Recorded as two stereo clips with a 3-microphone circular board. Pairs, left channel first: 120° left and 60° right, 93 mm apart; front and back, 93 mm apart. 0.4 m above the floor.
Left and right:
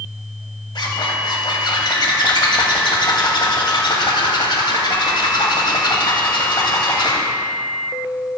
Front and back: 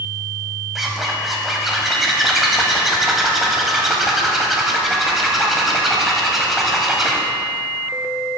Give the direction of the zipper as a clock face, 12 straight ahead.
9 o'clock.